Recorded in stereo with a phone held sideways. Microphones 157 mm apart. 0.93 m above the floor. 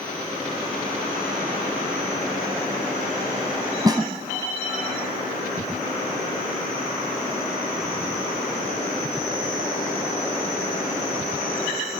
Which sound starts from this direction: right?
A snare drum, at 3.9 s.